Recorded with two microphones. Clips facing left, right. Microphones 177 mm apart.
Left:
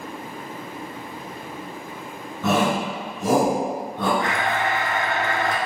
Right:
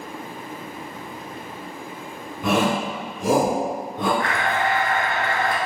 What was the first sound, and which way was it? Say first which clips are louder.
A shout: even; 15° right (ahead or behind).